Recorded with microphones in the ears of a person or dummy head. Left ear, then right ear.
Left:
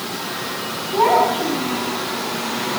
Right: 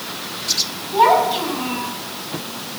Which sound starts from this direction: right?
A child speaking, at 0.9 s.